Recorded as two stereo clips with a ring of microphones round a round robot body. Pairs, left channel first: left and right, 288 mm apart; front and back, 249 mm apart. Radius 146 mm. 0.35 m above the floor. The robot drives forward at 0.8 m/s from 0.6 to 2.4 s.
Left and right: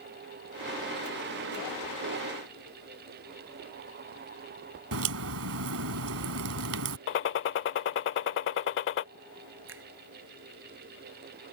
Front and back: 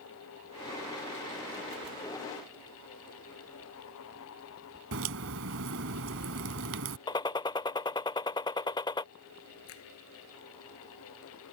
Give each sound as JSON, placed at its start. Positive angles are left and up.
{"t": 4.9, "sound": "a crack", "azimuth_deg": -135}
{"t": 7.1, "sound": "a gunshot", "azimuth_deg": 65}
{"t": 9.7, "sound": "a finger snap", "azimuth_deg": -40}